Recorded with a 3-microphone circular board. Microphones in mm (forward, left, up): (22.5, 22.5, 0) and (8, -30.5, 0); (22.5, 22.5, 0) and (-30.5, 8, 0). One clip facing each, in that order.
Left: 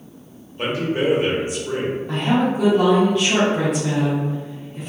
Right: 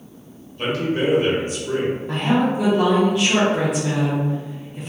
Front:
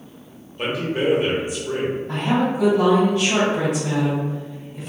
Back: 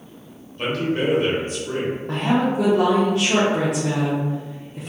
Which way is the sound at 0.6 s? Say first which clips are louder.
Even, even; 75° left.